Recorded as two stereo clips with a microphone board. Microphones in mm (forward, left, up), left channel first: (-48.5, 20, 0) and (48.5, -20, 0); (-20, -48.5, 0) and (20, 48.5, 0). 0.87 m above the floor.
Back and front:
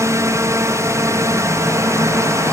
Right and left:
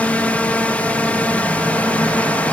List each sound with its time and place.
0.0 s a drone: 50° right